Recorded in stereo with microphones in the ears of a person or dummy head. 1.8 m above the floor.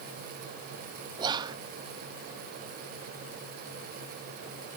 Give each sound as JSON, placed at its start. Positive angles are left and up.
{"t": 1.2, "sound": "whispering", "side_deg": -25, "distance_m": 0.8}